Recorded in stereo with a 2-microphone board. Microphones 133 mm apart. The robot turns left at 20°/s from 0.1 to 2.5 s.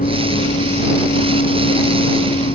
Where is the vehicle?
100° left; by 2.6 s 55° left.